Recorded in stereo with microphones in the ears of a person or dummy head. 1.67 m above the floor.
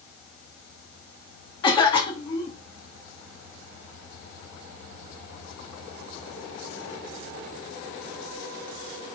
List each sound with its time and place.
1.6 s a cough: 20° left (ahead or behind), 0.7 m